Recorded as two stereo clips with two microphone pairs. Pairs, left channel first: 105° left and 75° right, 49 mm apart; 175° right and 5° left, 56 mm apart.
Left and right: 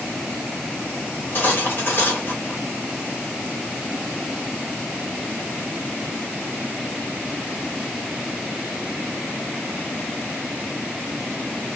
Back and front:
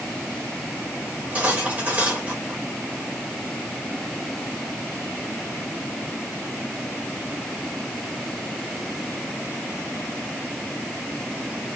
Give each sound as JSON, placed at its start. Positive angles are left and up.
{"t": 1.1, "sound": "cutlery clinking", "azimuth_deg": 60, "distance_m": 1.6}